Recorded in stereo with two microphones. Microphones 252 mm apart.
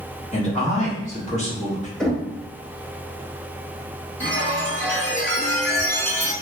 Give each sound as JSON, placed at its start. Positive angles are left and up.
{"t": 0.3, "sound": "a man speaking", "side_deg": 30, "distance_m": 1.0}
{"t": 2.0, "sound": "knocking", "side_deg": 0, "distance_m": 0.6}
{"t": 4.2, "sound": "a chime", "side_deg": 5, "distance_m": 1.0}